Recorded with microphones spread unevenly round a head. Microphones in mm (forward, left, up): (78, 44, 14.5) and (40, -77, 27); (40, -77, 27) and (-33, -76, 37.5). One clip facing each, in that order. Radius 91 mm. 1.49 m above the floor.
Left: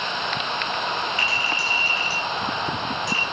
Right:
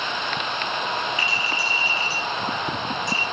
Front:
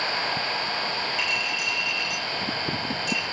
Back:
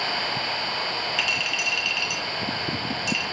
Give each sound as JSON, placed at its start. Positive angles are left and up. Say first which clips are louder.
{"t": 1.2, "sound": "a clink", "louder": "even, back 1 dB", "azimuth_deg": 180, "distance_m": 5.0}